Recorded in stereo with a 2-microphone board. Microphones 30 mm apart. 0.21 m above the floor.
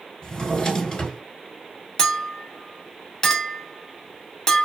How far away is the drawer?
About 1.1 m.